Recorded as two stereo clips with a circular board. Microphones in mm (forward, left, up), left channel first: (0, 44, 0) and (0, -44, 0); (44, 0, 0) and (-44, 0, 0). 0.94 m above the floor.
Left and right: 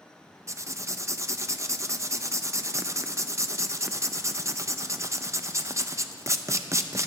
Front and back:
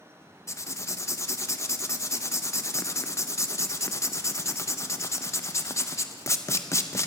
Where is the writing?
45° right, 0.5 m.